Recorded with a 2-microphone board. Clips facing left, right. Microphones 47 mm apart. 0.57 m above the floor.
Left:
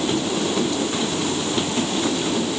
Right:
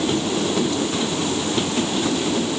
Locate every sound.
Only background noise.